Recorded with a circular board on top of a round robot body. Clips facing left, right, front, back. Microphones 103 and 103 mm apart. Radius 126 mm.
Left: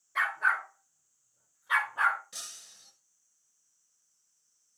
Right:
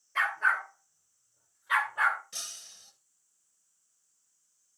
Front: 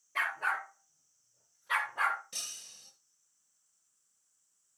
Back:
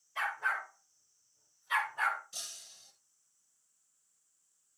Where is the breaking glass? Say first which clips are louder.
Right 1 dB, front 1 dB; 10° left, 5.5 m.